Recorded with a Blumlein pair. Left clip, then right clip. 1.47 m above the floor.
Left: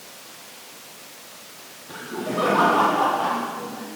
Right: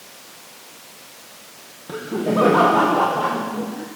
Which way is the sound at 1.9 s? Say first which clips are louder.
Right 6 dB; 30° right.